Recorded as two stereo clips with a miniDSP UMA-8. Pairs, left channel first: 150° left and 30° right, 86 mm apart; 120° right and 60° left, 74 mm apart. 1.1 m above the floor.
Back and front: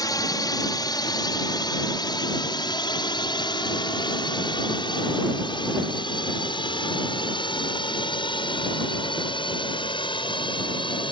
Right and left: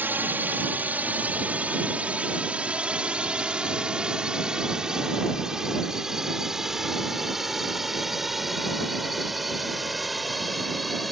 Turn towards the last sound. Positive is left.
turn(degrees=150)